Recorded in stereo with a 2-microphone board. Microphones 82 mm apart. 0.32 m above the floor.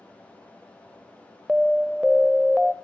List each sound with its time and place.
1.5 s an alarm: 5° right (ahead or behind), 1.1 m